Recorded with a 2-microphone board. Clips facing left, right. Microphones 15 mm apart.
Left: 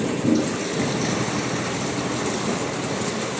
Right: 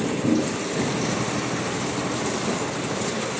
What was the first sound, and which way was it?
A toilet flushing, 15° left (ahead or behind).